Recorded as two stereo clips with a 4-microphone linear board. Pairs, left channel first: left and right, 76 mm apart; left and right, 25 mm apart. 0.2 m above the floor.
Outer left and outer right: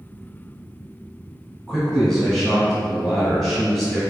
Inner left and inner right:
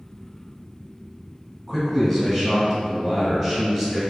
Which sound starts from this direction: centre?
A man speaking, at 1.7 s.